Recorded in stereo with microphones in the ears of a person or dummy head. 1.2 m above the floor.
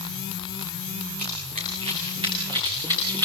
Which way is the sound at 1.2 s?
45° right (ahead or behind).